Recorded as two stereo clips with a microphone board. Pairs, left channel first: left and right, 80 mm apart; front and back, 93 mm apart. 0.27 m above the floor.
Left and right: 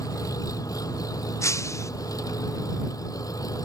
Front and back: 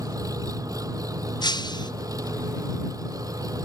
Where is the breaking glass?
40° left.